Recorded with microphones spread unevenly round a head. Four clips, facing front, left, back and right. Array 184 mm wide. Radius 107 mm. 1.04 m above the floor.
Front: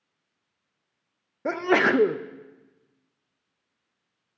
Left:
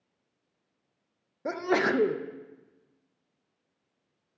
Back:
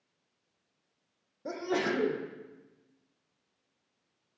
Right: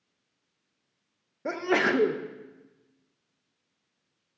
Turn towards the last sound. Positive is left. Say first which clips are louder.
# right 1 dB, front 9 dB
turn(degrees=-25)